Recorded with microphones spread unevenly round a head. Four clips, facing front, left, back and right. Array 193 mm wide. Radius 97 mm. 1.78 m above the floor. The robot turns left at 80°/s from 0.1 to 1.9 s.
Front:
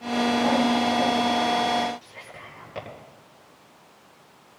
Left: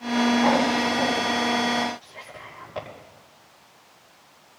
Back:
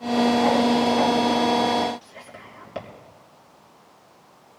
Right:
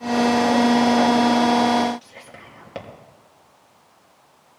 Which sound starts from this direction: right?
Whispering, at 2.0 s.